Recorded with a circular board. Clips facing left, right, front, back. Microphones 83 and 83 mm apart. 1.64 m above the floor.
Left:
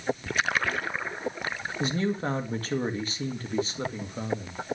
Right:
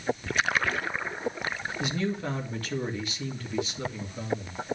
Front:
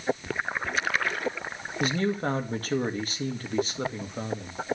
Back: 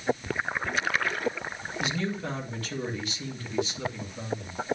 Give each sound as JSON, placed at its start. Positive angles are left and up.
{"t": 1.8, "sound": "a man speaking", "azimuth_deg": 40, "distance_m": 2.0}